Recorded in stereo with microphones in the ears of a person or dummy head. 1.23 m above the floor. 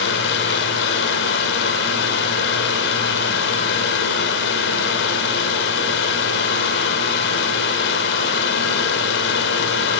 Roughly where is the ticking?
No ticking in this recording.